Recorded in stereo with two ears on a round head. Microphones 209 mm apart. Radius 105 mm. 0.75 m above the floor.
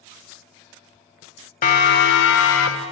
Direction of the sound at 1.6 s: 40° left (ahead or behind).